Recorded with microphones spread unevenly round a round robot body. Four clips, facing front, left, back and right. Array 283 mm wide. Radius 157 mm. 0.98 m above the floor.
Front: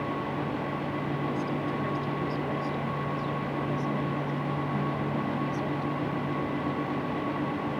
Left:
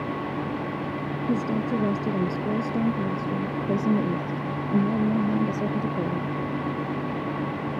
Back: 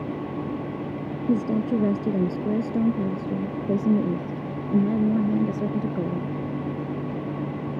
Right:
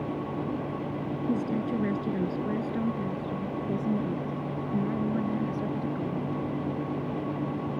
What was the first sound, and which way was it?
A woman speaking, 170° left.